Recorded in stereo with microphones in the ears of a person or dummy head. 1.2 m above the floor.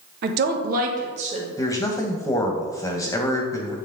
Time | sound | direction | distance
0.2 | a woman speaking | 55° right (ahead or behind) | 1.0 m
1.6 | a man speaking | 20° left (ahead or behind) | 0.9 m